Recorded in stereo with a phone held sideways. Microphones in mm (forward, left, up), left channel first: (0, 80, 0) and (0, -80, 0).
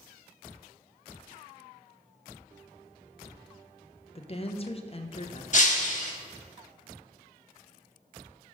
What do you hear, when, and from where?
4.2 s a woman speaking: 40° left (ahead or behind), 0.6 m
5.5 s breaking glass: 50° left (ahead or behind), 1.1 m